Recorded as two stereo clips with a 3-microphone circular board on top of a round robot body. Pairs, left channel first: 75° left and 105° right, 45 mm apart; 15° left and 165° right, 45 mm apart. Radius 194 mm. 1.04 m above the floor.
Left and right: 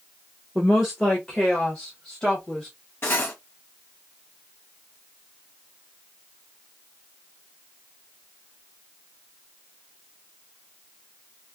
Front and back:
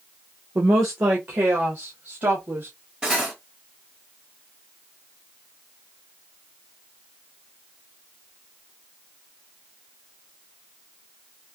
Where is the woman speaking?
165° left, 0.6 m.